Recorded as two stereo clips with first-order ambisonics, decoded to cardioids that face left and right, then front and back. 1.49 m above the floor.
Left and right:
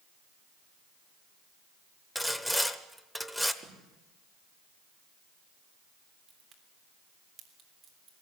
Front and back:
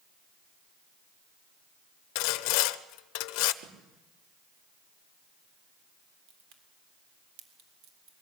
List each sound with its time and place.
2.1 s sawing: straight ahead, 0.9 m
3.6 s a snare drum: 155° right, 4 m
6.3 s a crack: 155° right, 3.5 m